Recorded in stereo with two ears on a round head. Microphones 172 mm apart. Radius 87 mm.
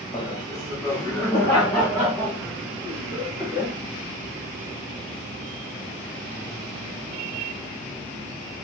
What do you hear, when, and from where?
0.1 s laughter: 25° left (ahead or behind), 1.0 m; by 3.8 s centre (ahead or behind), 3 m